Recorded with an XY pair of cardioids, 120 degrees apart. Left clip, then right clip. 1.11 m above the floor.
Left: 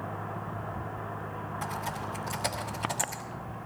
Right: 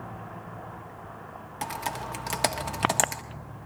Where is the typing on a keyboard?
70° right, 1.5 m.